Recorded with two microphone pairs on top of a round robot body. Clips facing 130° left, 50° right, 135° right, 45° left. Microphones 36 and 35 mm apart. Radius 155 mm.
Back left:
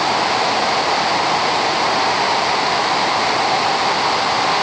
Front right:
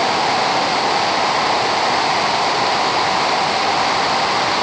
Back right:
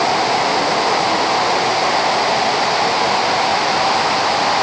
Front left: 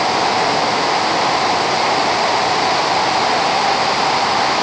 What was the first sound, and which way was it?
Only background noise.